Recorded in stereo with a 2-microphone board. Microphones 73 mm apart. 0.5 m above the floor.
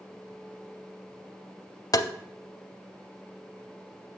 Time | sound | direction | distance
1.9 | tapping | 60° left (ahead or behind) | 0.5 m